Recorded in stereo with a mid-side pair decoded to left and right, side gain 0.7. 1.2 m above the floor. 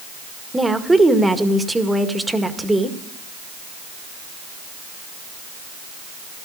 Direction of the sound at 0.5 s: 10° right.